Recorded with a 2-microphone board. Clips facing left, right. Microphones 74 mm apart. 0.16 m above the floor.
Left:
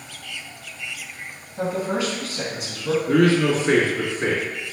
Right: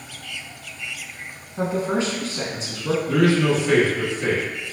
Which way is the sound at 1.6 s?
30° right (ahead or behind).